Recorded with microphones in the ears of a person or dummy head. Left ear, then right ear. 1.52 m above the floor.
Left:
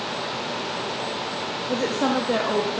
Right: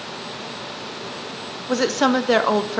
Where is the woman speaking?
65° right (ahead or behind), 0.6 m.